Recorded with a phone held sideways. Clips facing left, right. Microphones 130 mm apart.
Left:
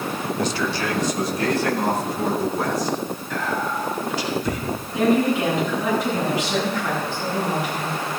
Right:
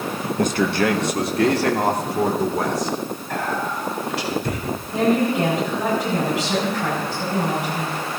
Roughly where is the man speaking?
Right.